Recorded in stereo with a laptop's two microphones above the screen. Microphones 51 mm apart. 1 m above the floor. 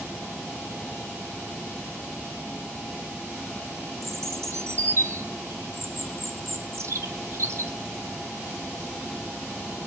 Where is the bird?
60° right (ahead or behind), 0.8 m.